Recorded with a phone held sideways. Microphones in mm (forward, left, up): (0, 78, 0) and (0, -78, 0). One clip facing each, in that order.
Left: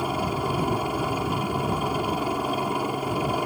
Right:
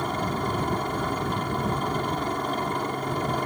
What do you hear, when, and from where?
0.0 s a helicopter: 10° left (ahead or behind)